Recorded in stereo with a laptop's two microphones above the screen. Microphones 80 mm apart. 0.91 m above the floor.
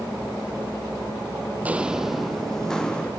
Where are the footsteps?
20° right (ahead or behind), 1.5 m; by 3.1 s 10° left (ahead or behind), 3 m.